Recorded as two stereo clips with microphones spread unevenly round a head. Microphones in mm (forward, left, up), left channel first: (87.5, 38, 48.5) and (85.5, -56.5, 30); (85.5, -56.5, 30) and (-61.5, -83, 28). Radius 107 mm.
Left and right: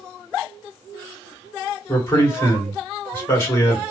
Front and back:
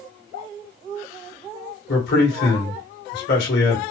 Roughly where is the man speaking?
Ahead left.